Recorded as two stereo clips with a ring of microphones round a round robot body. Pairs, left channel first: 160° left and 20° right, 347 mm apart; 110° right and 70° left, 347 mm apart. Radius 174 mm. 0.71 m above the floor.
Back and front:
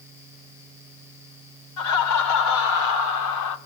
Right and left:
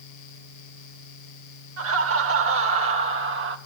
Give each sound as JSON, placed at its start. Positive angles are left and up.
{"t": 1.8, "sound": "laughter", "azimuth_deg": 120, "distance_m": 3.5}